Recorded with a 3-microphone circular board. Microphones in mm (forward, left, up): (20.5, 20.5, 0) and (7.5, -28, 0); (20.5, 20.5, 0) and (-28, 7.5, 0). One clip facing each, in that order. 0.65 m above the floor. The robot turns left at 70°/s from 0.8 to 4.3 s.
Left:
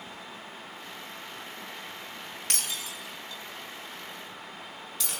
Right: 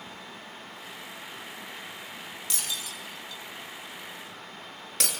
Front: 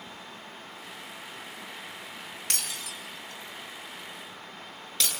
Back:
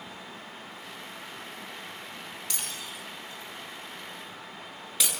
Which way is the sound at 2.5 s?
40° left.